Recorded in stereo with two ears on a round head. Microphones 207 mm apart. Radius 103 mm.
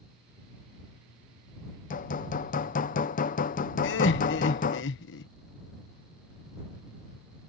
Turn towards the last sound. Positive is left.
turn(degrees=55)  # may be behind; listen again after turning